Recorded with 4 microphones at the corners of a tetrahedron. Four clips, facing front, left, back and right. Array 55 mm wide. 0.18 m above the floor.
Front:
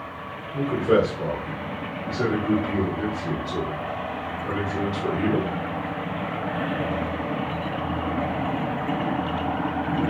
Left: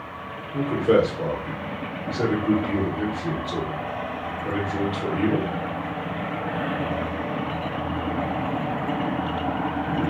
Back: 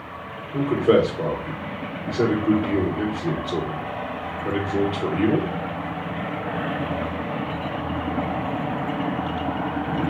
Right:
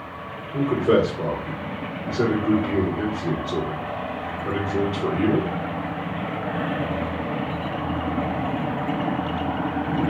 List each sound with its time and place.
0.5 s a man speaking: 155° right, 3 m